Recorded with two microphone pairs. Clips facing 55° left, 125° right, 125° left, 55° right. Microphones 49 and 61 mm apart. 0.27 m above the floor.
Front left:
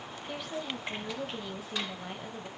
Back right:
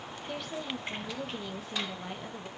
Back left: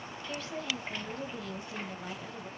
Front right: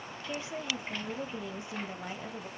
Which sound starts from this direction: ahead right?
A woman speaking, at 0.3 s.